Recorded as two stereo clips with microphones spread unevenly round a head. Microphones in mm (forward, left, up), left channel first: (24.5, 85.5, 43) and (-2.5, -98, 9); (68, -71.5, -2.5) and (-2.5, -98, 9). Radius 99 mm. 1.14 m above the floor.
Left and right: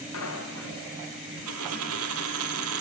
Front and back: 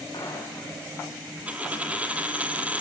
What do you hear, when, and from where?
0.1 s footsteps: 95° left, 7.5 m
1.5 s a dropped coin: 95° right, 2.5 m